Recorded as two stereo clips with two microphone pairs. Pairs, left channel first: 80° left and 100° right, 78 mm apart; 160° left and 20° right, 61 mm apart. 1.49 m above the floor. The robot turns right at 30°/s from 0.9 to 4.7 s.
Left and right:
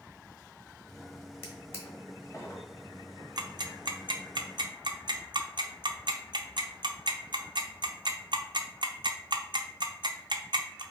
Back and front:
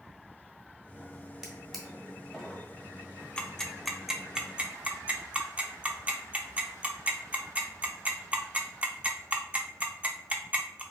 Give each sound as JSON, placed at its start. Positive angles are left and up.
{"t": 1.4, "sound": "a drawer", "azimuth_deg": 55, "distance_m": 1.4}
{"t": 3.4, "sound": "ticking", "azimuth_deg": -125, "distance_m": 0.6}